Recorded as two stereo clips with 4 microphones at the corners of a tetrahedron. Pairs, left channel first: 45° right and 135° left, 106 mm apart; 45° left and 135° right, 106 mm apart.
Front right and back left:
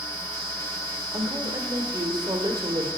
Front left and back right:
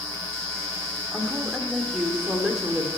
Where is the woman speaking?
140° left, 1.6 m.